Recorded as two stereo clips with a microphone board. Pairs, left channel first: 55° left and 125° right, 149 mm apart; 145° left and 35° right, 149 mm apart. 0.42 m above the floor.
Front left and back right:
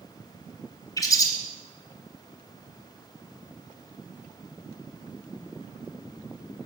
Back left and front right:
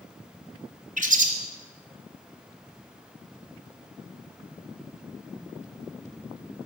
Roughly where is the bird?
Ahead.